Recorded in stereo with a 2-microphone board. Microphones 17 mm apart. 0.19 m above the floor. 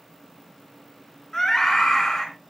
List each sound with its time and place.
1.3 s a scream: 25° left (ahead or behind), 2.5 m